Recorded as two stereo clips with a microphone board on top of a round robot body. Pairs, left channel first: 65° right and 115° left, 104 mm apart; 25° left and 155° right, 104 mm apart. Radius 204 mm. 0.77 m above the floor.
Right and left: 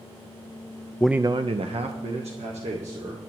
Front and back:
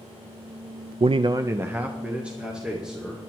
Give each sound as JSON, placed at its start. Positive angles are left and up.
{"t": 1.0, "sound": "a man speaking", "azimuth_deg": -140, "distance_m": 0.5}